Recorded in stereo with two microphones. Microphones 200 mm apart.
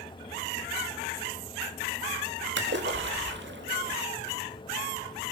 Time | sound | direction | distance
2.6 | a splash | 60° right (ahead or behind) | 2.5 m